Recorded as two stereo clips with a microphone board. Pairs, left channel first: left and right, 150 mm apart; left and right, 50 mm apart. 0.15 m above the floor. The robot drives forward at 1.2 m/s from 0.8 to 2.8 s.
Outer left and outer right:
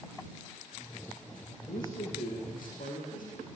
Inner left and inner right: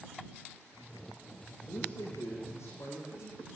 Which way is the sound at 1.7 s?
80° left.